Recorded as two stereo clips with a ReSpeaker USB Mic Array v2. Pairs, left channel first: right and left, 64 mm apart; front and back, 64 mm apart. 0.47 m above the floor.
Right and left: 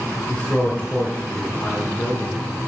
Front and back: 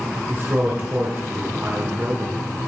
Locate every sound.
0.3 s a man speaking: 145° right, 1.8 m